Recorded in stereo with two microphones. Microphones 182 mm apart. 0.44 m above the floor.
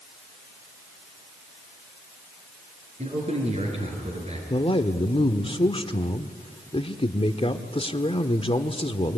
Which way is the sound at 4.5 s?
30° left (ahead or behind).